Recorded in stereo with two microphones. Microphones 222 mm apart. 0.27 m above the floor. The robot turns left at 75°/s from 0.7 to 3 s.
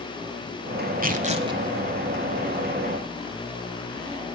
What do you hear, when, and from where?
1.0 s tearing paper: 115° right, 1.1 m; by 1.6 s 160° right, 1.1 m